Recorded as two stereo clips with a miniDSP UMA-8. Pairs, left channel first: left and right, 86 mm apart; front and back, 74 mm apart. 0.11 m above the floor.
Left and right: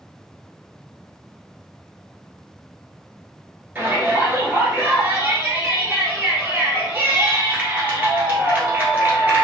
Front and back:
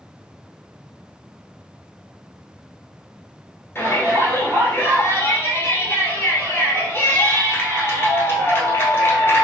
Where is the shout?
35° right, 1.4 m.